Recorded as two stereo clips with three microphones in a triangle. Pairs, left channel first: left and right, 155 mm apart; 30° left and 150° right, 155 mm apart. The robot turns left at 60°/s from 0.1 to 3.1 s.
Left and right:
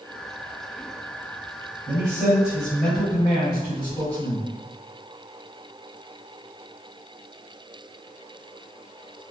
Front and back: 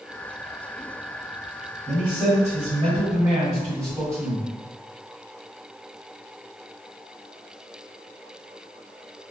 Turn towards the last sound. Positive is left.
turn(degrees=155)